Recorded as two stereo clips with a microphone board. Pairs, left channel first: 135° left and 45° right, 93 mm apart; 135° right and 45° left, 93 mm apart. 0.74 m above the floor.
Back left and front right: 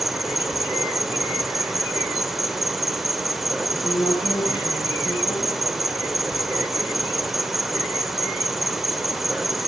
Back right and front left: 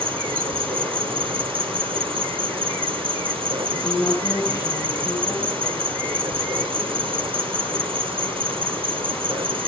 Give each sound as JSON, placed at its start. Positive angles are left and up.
{"t": 0.0, "sound": "an insect", "azimuth_deg": 40, "distance_m": 2.0}
{"t": 3.7, "sound": "a woman speaking", "azimuth_deg": 175, "distance_m": 6.5}